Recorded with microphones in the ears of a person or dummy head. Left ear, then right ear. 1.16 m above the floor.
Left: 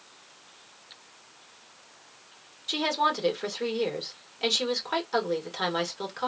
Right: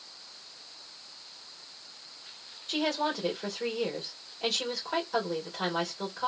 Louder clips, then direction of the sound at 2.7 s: Left 4 dB; 70° left (ahead or behind).